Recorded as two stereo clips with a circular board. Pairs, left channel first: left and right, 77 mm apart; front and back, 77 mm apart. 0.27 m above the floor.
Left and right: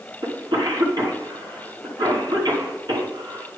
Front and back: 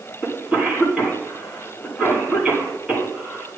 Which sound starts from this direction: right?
A cough, at 0.2 s.